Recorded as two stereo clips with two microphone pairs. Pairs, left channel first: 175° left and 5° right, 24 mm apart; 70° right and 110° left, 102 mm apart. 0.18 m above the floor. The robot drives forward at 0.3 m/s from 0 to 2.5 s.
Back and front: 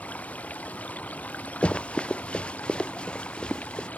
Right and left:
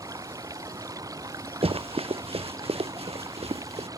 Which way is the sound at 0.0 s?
165° left.